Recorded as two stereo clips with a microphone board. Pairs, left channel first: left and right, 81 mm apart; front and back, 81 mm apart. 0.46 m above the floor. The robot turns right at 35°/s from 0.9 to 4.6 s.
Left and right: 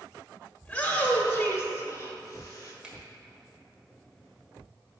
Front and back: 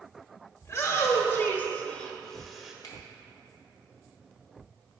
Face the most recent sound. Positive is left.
turn(degrees=45)